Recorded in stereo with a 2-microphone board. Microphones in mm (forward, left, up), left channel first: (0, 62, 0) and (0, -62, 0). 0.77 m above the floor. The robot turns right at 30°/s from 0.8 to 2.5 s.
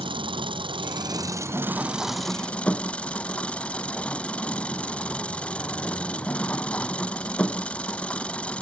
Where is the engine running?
40° right; by 8.6 s 10° left.